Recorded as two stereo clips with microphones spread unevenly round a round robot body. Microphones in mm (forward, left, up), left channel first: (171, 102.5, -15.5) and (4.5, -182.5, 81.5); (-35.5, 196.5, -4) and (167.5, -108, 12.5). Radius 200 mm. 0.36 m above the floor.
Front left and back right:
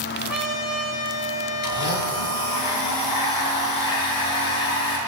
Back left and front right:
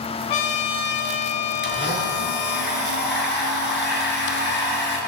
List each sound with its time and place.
0.3 s a trumpet: 150° left, 1.5 m
1.6 s a blender: 60° left, 5.5 m